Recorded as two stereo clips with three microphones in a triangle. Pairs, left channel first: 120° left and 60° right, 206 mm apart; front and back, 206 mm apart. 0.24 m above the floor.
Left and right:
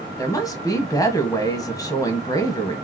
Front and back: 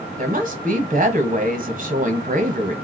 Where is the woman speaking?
Straight behind, 1.2 m.